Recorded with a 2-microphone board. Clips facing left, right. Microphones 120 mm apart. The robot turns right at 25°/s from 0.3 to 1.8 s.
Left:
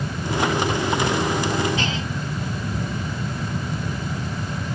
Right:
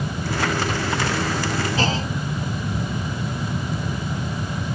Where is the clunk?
35° right (ahead or behind).